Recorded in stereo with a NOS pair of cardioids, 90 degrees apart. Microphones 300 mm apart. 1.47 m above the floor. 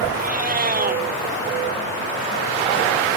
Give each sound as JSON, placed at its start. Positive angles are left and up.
{"t": 0.1, "sound": "a cat meowing", "azimuth_deg": -30}